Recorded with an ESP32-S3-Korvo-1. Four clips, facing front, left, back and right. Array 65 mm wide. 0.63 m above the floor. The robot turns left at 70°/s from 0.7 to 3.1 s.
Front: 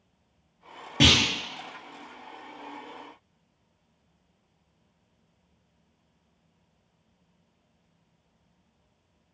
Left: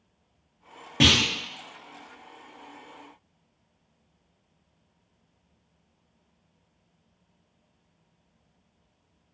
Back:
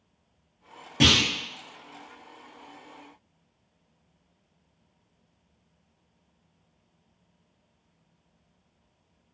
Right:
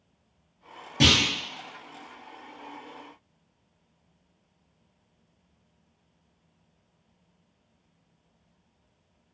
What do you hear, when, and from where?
1.0 s a clunk: 60° left, 1.1 m; by 1.2 s 45° left, 1.1 m